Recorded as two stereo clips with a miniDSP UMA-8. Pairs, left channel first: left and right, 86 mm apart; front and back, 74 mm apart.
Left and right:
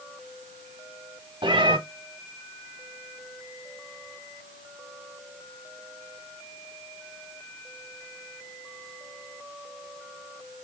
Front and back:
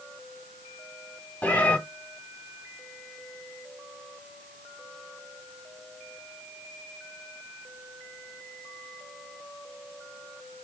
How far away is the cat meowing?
About 1.0 m.